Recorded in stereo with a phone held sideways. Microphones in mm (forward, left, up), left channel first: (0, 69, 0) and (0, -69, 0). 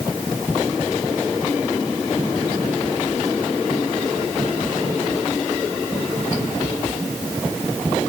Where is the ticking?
I don't hear ticking.